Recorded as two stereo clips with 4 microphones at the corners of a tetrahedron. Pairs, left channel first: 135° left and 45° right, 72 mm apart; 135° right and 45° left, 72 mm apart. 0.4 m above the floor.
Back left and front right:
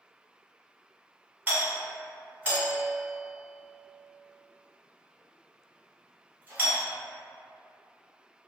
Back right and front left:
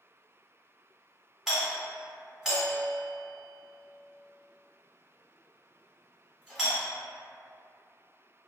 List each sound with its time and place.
1.5 s a doorbell: 35° right, 1.3 m